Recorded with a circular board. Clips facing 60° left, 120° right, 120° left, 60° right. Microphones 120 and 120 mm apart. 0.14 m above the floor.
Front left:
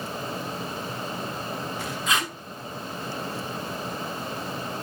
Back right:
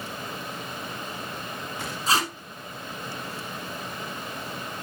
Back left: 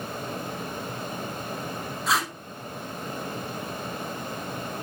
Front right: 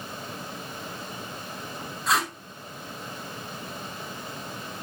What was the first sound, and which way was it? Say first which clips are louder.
Tape being pulled: back right 3 dB, front right 1 dB; 150° right.